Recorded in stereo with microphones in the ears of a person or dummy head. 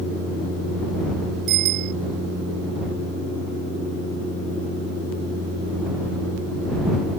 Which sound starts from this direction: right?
A bicycle bell, at 1.5 s.